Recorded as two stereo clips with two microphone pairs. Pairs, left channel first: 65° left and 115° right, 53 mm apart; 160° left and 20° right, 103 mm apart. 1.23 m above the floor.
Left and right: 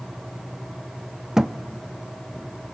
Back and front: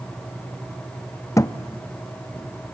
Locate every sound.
1.4 s a thud: 175° left, 0.6 m